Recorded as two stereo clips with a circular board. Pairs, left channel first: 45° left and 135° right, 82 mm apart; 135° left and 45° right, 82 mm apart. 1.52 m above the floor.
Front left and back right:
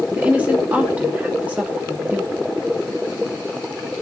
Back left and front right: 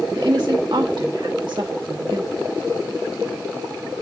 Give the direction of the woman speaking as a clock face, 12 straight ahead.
2 o'clock.